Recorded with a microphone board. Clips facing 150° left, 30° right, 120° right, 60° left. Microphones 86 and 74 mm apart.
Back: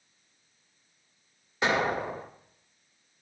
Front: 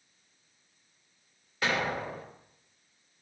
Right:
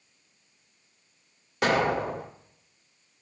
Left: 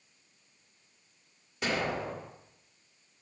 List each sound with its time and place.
1.6 s an explosion: 140° right, 1.5 m